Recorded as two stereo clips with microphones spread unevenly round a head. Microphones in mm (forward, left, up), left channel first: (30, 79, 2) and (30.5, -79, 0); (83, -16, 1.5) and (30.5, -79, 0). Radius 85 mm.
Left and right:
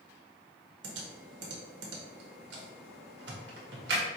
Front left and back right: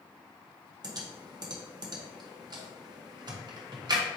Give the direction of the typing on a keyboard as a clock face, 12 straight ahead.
3 o'clock.